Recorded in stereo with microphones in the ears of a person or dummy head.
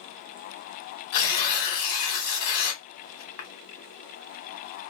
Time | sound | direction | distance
1.1 | tearing paper | 50° left (ahead or behind) | 1.3 m